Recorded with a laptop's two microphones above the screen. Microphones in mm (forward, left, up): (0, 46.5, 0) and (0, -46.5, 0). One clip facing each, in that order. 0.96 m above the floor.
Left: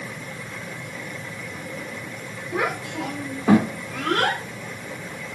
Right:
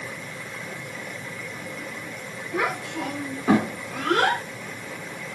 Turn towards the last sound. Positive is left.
turn(degrees=-15)  # may be behind; listen again after turning